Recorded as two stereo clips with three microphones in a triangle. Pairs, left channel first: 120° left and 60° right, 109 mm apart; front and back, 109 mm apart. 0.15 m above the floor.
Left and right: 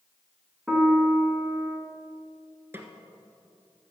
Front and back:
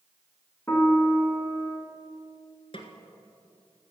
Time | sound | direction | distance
0.7 | a piano | 20° left | 1.6 m
2.7 | a snare drum | 5° left | 1.3 m